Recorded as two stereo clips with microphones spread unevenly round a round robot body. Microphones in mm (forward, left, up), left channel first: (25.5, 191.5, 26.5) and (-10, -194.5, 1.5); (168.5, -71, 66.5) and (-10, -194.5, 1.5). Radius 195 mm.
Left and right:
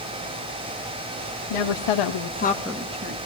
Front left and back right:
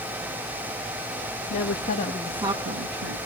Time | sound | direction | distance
1.5 | a woman speaking | 85° left | 1.6 m